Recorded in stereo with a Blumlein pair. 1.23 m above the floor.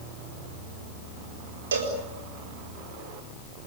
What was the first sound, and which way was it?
A cowbell, 65° right.